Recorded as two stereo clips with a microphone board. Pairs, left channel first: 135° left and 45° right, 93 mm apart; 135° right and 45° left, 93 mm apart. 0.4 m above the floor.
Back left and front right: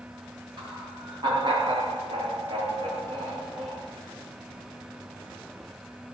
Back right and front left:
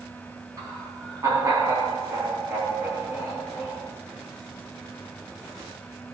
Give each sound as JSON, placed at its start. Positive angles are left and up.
{"t": 0.6, "sound": "laughter", "azimuth_deg": -5, "distance_m": 4.0}